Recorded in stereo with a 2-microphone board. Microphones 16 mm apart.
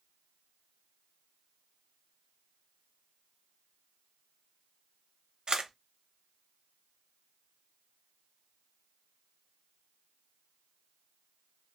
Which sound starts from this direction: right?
A camera shutter, at 5.5 s.